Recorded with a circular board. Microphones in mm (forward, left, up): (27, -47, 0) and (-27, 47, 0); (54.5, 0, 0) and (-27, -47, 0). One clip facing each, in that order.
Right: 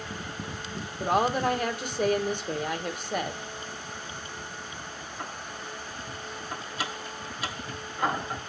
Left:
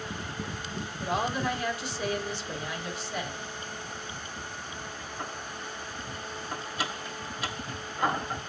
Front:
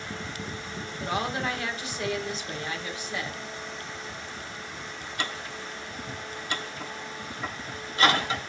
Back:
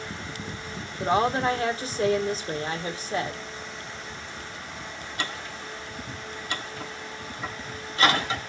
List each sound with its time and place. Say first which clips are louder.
1.0 s a woman speaking: right 5 dB, back 7 dB; 95° right, 1.5 m